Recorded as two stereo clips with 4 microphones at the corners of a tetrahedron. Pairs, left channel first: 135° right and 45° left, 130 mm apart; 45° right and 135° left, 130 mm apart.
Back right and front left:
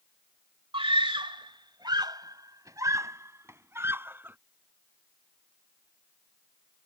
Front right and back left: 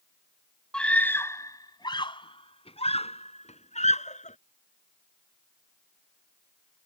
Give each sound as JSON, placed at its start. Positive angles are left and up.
{"t": 0.7, "sound": "a scream", "azimuth_deg": 35}